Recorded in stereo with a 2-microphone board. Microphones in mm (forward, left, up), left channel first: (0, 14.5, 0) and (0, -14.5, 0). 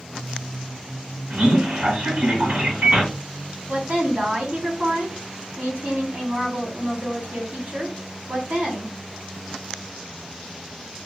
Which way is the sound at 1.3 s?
65° right (ahead or behind).